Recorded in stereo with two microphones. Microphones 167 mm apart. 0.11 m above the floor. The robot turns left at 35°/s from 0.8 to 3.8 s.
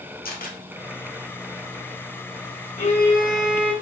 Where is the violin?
45° left, 2.5 m; by 3.7 s 10° left, 2.5 m.